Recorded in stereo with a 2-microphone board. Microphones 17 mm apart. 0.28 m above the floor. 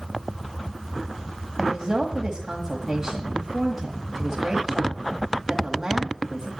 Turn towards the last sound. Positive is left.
turn(degrees=-35)  # may be behind; listen again after turning